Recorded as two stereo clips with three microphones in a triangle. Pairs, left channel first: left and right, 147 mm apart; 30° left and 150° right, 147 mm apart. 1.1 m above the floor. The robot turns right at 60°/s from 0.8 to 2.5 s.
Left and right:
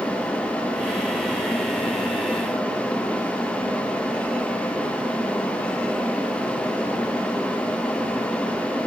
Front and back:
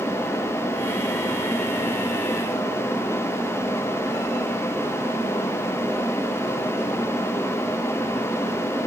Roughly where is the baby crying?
No baby crying in this recording.